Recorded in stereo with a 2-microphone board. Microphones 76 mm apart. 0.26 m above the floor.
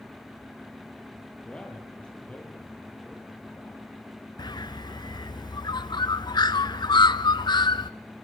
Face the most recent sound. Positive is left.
turn(degrees=75)  # may be behind; listen again after turning